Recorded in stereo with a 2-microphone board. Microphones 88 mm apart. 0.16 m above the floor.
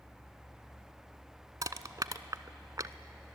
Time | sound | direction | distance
1.6 | crushing | 45° right (ahead or behind) | 0.7 m